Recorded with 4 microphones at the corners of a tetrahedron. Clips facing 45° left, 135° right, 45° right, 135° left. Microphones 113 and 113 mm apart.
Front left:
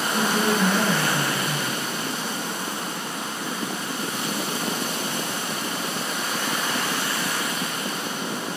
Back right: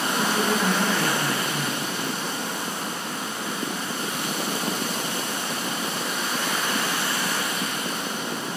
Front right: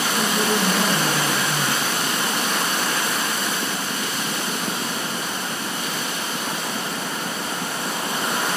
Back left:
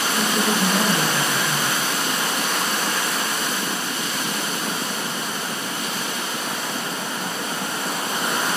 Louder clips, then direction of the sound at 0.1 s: Front left 2 dB, even; 60° left.